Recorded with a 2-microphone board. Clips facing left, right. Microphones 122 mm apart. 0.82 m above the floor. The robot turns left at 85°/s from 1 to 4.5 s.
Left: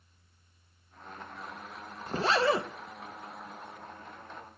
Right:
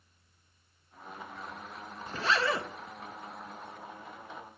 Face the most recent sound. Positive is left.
turn(degrees=-115)